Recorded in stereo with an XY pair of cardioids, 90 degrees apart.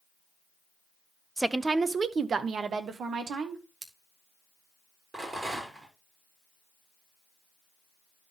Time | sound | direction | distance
1.4 | a woman speaking | 10° right | 0.6 m
3.8 | scissors | 45° right | 1.6 m
5.1 | a rattle | 45° right | 6 m